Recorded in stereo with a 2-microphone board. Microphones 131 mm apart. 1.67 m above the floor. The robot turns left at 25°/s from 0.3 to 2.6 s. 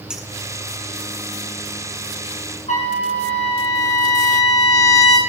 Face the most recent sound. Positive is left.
turn(degrees=65)  # may be behind; listen again after turning